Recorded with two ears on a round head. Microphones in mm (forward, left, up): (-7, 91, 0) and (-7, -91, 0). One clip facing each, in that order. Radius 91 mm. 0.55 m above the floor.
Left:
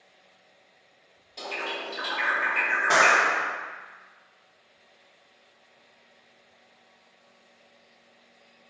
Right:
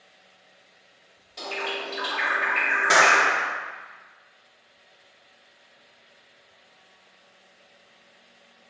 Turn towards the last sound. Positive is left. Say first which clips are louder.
# right 2 dB
turn(degrees=-20)  # may be behind; listen again after turning